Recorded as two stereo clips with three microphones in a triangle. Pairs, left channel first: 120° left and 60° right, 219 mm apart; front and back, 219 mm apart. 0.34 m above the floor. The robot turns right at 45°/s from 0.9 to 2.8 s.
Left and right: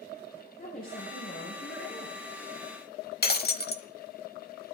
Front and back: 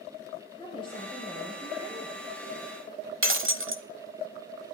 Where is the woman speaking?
70° left, 6.5 m; by 2.2 s 130° left, 6.5 m.